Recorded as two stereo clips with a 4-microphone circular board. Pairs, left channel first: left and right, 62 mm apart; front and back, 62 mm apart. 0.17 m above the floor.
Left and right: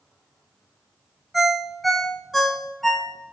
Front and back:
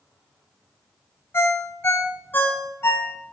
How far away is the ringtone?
About 0.5 m.